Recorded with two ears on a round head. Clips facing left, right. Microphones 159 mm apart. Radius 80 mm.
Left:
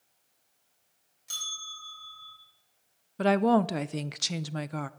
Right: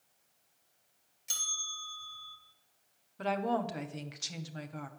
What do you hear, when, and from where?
1.3 s a bell: 25° right (ahead or behind), 4 m
3.2 s a woman speaking: 65° left (ahead or behind), 0.6 m